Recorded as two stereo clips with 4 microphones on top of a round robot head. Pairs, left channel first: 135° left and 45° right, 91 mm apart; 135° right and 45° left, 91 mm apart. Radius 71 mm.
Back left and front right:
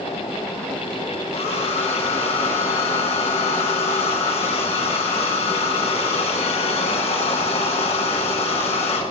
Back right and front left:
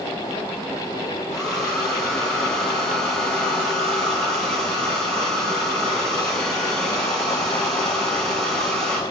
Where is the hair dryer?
140° left, 9.5 m.